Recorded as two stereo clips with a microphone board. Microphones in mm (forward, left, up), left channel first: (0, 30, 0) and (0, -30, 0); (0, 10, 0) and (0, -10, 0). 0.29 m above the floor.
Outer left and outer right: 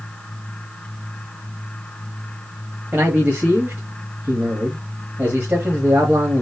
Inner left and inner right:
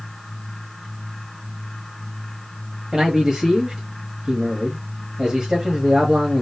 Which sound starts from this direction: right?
A man speaking, at 2.9 s.